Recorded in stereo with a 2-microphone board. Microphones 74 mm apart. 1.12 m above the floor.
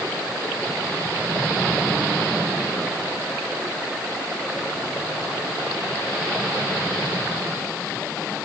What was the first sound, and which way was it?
Only background noise.